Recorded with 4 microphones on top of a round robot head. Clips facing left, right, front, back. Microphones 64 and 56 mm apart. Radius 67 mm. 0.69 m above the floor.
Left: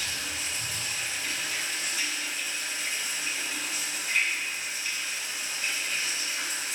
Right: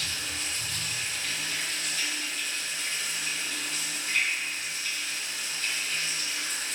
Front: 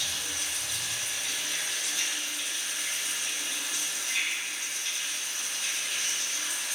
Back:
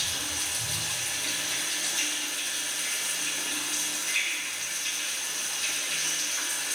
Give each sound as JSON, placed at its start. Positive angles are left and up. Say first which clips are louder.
{"t": 0.0, "sound": "running water", "louder": "left 1 dB, back 1 dB", "azimuth_deg": 170, "distance_m": 3.0}